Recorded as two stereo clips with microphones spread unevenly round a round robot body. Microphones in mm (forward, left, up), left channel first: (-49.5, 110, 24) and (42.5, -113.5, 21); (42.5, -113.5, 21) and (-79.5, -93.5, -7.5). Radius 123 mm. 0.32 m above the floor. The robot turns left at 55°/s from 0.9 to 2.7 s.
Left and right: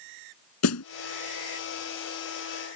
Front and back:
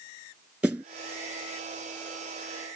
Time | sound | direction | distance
0.6 | a snare drum | 85° left | ?